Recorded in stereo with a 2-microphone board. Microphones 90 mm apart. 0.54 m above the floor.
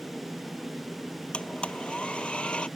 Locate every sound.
1.3 s a blender: 10° left (ahead or behind)